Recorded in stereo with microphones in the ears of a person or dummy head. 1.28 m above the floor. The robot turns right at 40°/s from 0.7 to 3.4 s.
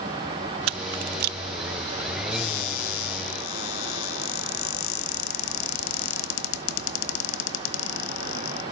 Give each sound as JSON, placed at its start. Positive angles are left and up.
{"t": 0.7, "sound": "a camera shutter", "side_deg": -75, "distance_m": 0.6}
{"t": 2.3, "sound": "a cupboard door", "azimuth_deg": 55, "distance_m": 1.7}